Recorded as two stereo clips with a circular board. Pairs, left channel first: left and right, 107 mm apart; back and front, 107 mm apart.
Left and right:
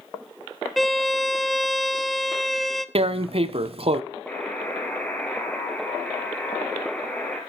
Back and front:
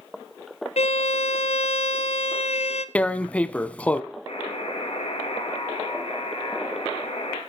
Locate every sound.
0.8 s a violin: straight behind, 0.9 m
3.0 s tearing paper: 105° right, 0.8 m
4.3 s a buzzer: 165° left, 4.5 m